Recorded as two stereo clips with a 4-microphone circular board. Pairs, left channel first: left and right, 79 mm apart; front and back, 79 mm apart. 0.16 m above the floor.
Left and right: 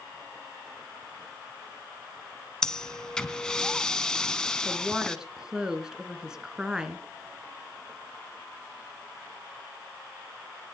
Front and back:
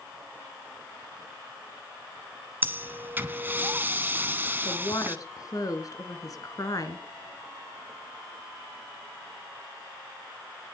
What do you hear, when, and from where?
2.6 s breathing: 160° left, 1.1 m
4.7 s a woman speaking: 10° right, 2.0 m